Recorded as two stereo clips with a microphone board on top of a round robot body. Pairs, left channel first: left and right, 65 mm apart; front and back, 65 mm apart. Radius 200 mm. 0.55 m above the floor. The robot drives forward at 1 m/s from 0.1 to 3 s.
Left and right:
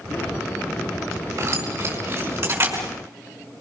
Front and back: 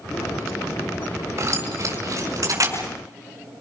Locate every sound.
1.4 s keys jangling: 135° right, 6 m; by 2.9 s 145° right, 7 m